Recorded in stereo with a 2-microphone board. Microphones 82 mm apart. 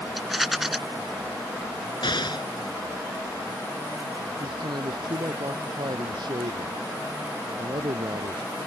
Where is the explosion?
70° left (ahead or behind).